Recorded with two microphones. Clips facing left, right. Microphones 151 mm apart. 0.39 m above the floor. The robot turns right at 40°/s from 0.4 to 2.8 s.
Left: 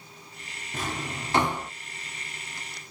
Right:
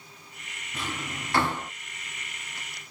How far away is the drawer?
About 0.6 m.